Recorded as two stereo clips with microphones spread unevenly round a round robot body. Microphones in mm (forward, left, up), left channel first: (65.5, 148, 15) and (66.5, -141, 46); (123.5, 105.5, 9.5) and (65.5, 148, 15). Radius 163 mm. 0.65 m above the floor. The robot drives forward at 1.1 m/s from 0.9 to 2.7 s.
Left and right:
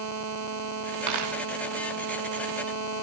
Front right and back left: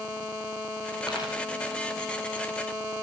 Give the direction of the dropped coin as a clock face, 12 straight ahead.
4 o'clock.